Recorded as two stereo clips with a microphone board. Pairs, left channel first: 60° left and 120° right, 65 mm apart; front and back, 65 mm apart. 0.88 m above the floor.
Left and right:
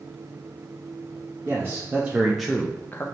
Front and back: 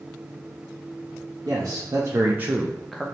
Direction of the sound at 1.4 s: 170° right.